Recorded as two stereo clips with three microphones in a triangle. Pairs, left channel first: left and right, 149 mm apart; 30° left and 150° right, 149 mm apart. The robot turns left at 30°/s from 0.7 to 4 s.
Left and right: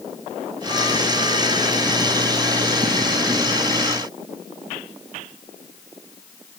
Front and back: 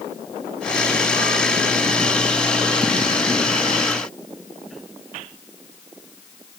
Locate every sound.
Only background noise.